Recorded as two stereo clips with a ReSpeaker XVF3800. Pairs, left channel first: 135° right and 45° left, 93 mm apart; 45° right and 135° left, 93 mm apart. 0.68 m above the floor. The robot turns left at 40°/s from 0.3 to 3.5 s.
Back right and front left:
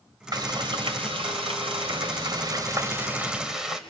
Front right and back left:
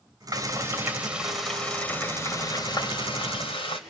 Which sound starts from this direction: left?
Frying, at 0.3 s.